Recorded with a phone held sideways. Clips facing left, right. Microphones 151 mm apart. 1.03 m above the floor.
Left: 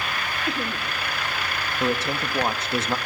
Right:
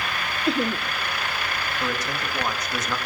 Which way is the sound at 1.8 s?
25° left (ahead or behind).